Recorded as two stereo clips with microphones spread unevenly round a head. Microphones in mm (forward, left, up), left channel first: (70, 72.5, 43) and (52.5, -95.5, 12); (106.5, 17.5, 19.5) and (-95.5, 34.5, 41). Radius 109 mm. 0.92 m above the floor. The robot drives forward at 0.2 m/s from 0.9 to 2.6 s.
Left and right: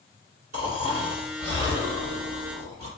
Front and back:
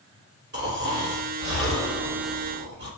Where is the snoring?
145° right, 3.5 m.